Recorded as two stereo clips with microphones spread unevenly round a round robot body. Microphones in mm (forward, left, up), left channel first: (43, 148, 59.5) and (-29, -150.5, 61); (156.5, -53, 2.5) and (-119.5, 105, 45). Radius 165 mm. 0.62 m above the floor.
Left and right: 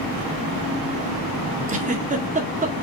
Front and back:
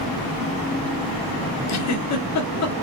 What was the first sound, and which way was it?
A giggle, 40° right.